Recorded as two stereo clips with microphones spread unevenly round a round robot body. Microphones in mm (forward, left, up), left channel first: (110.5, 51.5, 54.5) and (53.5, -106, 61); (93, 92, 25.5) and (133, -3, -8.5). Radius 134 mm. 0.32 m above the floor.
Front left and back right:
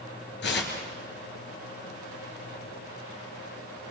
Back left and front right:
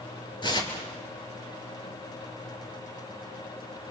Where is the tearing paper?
70° left, 3.5 m.